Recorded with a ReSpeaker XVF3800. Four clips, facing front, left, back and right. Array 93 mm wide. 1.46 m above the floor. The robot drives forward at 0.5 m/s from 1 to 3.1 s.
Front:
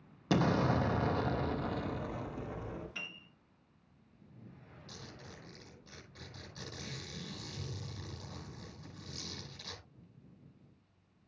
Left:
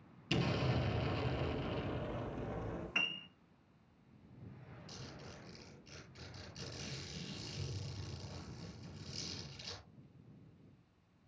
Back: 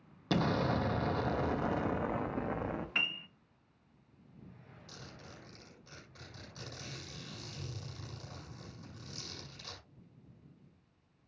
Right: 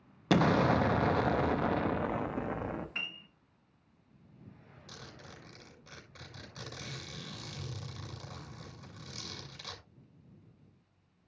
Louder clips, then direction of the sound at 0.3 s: Right 11 dB, front 2 dB; 80° right.